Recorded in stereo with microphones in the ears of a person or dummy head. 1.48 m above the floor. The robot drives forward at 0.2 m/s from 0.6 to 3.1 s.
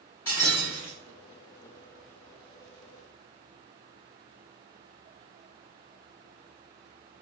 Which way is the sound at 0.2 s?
15° left (ahead or behind).